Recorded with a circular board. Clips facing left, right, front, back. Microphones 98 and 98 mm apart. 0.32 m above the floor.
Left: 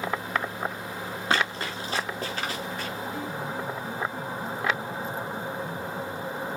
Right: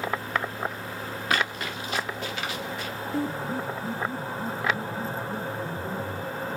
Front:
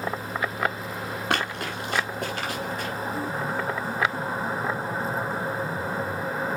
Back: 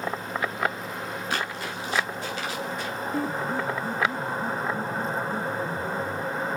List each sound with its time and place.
1.3 s running footsteps: 30° left, 3 m; by 2.9 s 40° left, 4.5 m
3.1 s a piano: 145° right, 1.7 m